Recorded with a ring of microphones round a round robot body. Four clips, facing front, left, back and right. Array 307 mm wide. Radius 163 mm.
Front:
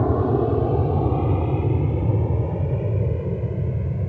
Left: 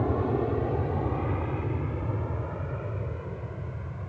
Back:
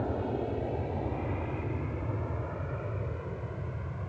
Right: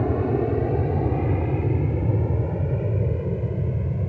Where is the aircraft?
25° right; by 4.1 s 45° right.